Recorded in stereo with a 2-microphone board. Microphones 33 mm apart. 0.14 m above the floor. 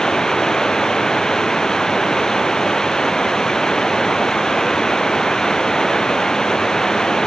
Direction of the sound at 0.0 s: 20° left (ahead or behind).